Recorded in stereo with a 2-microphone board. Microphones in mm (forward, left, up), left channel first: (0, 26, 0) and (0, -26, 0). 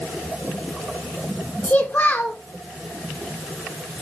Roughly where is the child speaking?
Left.